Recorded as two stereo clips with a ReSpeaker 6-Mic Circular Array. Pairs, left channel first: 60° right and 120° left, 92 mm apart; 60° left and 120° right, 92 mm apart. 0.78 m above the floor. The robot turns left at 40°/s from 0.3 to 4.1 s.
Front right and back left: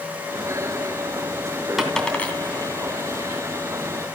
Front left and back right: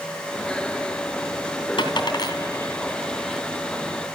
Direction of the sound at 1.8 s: 35° left.